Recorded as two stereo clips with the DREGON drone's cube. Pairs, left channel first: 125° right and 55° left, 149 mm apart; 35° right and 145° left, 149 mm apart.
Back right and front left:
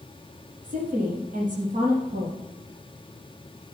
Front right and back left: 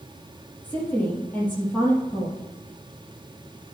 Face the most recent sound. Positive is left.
turn(degrees=45)